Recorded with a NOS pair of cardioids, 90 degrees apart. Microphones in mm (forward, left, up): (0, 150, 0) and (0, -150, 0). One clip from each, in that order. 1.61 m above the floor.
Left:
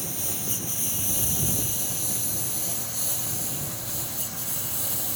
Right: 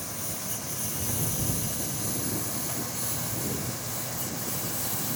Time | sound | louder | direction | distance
0.0 | a lawn mower | left 3 dB | 50° left | ?